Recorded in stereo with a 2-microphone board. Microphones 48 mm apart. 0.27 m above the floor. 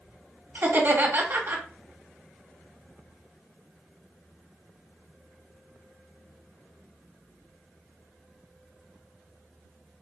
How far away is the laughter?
About 2 m.